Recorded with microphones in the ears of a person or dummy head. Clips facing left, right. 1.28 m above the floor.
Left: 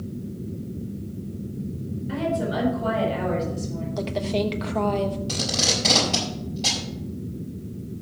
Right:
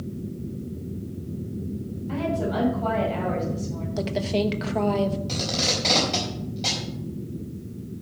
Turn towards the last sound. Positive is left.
turn(degrees=5)  # may be behind; listen again after turning